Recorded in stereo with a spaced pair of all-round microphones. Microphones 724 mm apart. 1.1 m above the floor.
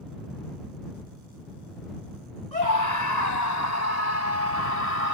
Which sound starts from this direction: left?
A scream, at 2.5 s.